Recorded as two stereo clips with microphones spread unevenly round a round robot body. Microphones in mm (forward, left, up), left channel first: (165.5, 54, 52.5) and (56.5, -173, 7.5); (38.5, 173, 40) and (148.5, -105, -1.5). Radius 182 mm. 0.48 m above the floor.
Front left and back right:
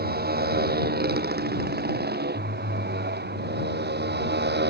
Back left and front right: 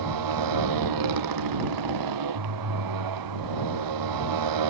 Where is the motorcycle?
65° right.